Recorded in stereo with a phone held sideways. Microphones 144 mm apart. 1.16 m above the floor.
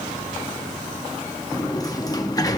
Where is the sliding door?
25° left (ahead or behind), 0.9 m.